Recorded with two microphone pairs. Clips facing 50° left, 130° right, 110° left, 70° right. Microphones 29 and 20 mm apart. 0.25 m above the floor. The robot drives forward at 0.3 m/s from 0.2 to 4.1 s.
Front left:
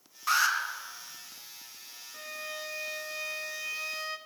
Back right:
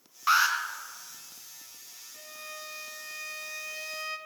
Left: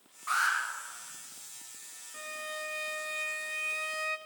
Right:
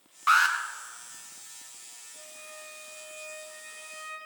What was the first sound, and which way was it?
An alarm, 65° right.